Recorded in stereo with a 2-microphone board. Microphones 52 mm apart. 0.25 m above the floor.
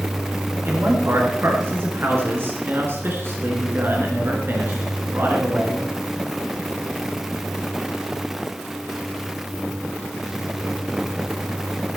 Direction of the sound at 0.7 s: 50° right (ahead or behind).